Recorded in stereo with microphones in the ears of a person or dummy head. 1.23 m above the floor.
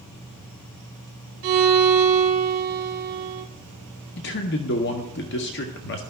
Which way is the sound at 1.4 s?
55° right (ahead or behind).